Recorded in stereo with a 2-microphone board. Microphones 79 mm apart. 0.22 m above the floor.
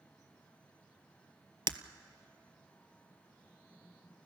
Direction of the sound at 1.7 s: 75° right (ahead or behind).